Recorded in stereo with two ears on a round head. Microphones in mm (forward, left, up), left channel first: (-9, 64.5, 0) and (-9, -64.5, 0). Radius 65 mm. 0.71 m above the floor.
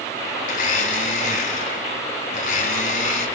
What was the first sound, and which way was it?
A blender, 60° left (ahead or behind).